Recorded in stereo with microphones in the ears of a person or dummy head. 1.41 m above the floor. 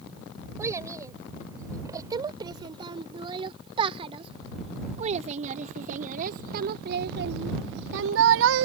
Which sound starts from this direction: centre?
A child speaking, at 0.6 s.